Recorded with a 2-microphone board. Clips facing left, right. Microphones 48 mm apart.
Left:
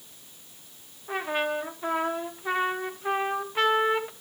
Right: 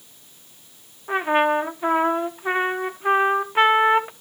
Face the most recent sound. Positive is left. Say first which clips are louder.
# right 9 dB
turn(degrees=-30)  # may be behind; listen again after turning